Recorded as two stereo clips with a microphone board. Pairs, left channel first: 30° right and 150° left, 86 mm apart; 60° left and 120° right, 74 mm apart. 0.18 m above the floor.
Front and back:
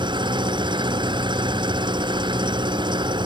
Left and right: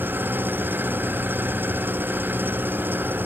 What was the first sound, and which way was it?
An engine running, 175° left.